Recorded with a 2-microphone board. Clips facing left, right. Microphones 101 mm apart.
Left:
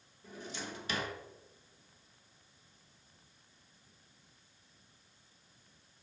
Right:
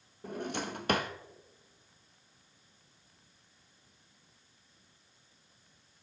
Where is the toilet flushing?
I don't hear a toilet flushing.